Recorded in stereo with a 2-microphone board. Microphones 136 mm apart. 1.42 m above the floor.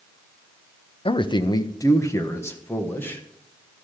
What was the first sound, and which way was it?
A man speaking, 40° left (ahead or behind).